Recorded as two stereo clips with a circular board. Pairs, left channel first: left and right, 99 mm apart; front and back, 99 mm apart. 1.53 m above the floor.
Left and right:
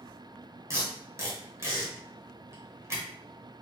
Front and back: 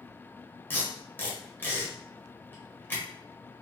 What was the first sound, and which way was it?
Tape being pulled, 55° right.